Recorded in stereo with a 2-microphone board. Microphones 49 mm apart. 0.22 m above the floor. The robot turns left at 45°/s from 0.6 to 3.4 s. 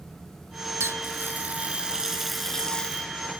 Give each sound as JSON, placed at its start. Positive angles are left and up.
{"t": 0.8, "sound": "a running tap", "azimuth_deg": -110}